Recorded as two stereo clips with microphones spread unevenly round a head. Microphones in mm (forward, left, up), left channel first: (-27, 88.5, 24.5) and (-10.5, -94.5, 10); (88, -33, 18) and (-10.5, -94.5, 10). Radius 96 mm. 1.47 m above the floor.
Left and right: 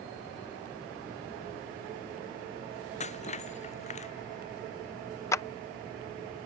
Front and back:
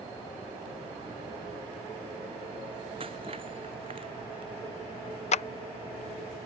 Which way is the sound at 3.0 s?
145° left.